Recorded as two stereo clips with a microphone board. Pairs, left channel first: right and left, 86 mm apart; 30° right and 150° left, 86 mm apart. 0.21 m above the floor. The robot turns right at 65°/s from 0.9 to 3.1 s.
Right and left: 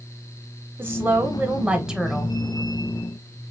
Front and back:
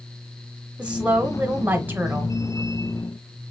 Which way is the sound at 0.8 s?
95° left.